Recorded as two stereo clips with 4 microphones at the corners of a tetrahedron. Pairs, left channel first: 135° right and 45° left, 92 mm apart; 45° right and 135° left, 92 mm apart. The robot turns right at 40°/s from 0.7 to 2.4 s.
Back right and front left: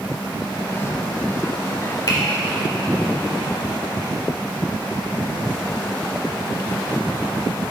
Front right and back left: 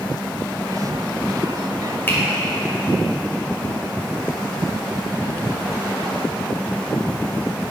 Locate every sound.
2.1 s a finger snap: 105° right, 1.5 m; by 2.2 s 100° right, 1.5 m